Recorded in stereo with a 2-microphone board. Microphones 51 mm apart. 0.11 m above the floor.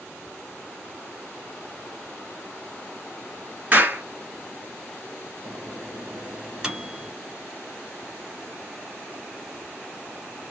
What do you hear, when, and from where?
3.7 s a clap: 30° right (ahead or behind), 1.4 m
5.4 s a microwave: 10° right (ahead or behind), 1.1 m